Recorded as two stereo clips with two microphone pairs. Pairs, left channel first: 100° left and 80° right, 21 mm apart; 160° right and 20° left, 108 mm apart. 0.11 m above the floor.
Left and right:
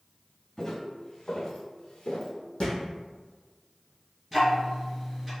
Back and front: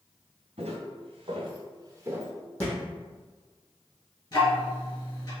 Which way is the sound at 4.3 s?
Straight behind.